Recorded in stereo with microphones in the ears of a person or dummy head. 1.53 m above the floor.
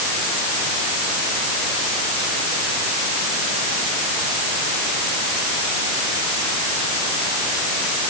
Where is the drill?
I don't hear a drill.